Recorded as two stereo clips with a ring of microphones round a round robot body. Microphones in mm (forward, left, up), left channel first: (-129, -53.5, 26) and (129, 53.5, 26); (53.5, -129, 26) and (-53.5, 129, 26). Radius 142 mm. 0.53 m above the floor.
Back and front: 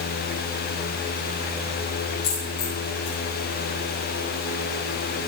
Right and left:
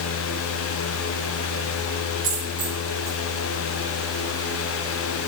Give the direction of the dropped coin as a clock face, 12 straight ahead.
7 o'clock.